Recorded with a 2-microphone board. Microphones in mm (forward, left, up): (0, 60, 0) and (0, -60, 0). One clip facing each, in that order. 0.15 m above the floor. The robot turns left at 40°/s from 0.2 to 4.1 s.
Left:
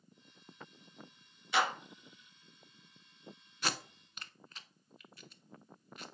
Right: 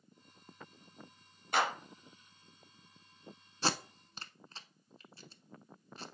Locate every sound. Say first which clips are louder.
1.5 s a clap: even; 50° right (ahead or behind), 2 m
3.6 s tape being pulled: right 4 dB; 30° right (ahead or behind), 0.6 m; by 6.0 s 35° right (ahead or behind), 0.6 m